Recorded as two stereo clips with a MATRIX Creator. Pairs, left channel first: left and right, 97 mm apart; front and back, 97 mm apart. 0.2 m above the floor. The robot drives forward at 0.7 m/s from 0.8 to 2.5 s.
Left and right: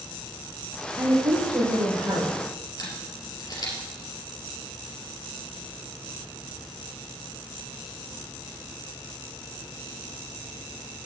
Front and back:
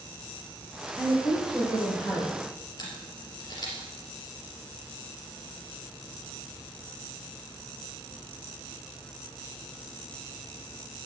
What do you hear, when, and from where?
1.0 s a woman speaking: 60° right, 5 m; by 2.3 s 75° right, 4.5 m
2.8 s a camera shutter: 45° left, 3 m